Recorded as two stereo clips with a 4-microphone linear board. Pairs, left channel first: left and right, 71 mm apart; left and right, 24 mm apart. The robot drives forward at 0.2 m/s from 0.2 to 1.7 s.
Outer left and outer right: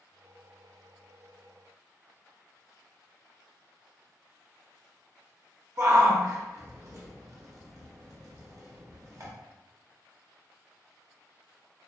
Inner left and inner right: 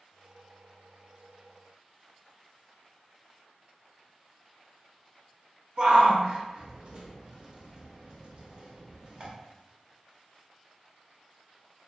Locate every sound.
5.8 s a shout: 45° right (ahead or behind), 0.8 m